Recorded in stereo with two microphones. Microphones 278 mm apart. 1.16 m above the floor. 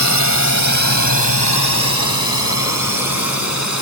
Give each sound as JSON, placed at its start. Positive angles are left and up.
{"t": 0.0, "sound": "a drone", "side_deg": 80}